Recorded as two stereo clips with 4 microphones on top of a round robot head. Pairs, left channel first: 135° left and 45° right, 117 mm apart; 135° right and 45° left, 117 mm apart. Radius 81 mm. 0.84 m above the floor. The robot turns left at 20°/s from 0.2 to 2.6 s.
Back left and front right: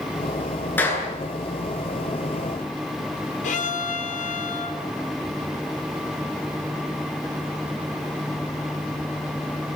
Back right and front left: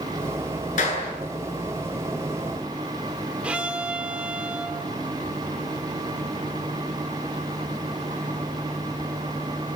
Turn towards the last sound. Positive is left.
turn(degrees=130)